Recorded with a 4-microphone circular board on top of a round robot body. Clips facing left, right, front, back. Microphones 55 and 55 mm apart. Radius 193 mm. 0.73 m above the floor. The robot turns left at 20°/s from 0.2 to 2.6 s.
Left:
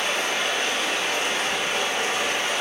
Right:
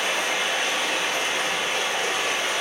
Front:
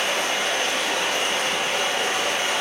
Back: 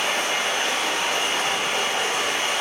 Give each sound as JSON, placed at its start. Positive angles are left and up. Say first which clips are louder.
{"t": 0.0, "sound": "running water", "louder": "even, even", "azimuth_deg": -160, "distance_m": 1.9}